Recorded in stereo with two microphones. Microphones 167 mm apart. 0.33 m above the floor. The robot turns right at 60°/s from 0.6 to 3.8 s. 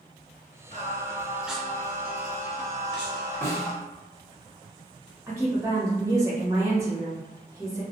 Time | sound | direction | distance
0.7 | singing | 50° right | 0.9 m
3.4 | a snare drum | 15° left (ahead or behind) | 1.0 m
5.3 | a woman speaking | 20° right (ahead or behind) | 0.8 m